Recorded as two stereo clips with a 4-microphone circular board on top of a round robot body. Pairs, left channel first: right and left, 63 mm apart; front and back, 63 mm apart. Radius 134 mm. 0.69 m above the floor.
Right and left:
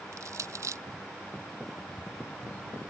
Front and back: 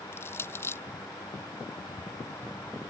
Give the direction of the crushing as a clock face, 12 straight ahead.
10 o'clock.